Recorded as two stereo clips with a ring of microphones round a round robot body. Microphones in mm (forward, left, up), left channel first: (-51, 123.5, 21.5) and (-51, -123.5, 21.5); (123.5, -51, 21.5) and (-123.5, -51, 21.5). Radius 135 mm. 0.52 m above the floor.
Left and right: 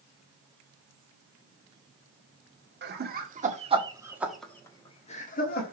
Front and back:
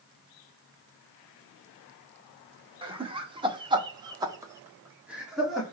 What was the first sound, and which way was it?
Laughter, 115° right.